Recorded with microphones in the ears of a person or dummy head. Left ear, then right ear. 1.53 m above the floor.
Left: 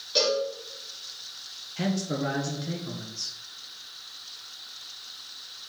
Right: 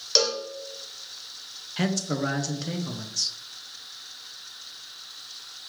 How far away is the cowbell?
About 0.8 m.